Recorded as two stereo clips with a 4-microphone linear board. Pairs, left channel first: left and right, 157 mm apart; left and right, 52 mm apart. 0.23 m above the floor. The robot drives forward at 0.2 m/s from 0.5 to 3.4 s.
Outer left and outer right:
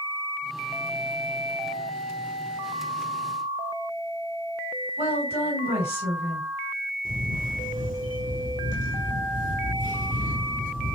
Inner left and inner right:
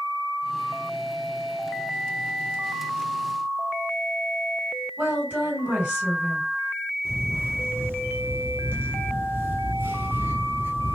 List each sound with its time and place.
5.0 s a woman speaking: 40° right (ahead or behind), 2.0 m
7.0 s a camera shutter: 55° right (ahead or behind), 0.8 m